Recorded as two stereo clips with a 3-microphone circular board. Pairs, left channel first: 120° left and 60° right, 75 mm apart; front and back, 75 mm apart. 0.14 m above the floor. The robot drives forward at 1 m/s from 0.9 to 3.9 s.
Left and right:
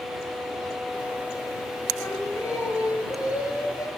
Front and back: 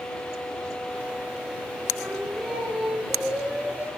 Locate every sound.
2.0 s singing: 80° left, 3 m; by 3.9 s 120° left, 3.5 m